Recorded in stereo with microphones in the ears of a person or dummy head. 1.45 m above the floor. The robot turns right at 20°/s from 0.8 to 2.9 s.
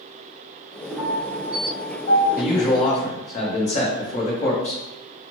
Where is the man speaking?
55° left (ahead or behind), 0.9 m; by 4.8 s 45° left (ahead or behind), 0.9 m.